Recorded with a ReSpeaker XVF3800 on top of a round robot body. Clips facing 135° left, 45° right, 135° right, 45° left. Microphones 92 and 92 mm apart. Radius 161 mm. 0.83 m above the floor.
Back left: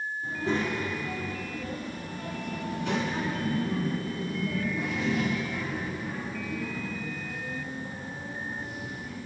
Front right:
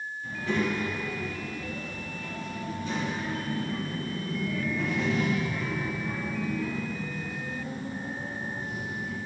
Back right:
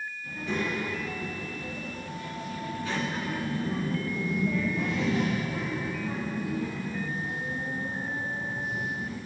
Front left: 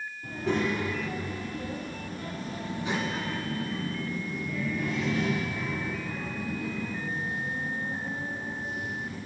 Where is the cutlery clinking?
I don't hear cutlery clinking.